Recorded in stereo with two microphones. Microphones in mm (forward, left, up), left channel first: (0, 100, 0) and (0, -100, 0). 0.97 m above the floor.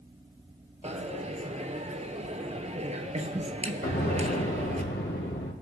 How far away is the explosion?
About 1.9 m.